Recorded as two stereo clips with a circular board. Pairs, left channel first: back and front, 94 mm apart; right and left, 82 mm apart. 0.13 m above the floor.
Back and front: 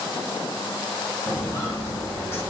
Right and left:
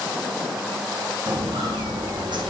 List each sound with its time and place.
1.3 s footsteps: 125° left, 6.5 m; by 2.5 s 110° left, 6 m